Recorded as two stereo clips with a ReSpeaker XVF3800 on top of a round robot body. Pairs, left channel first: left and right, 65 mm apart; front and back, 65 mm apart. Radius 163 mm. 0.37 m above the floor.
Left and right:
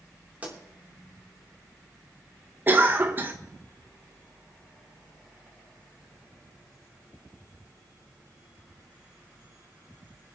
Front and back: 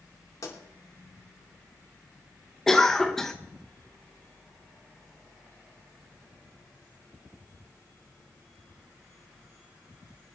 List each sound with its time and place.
0.4 s a pop: 25° right, 4.5 m
2.7 s a cough: 80° right, 1.2 m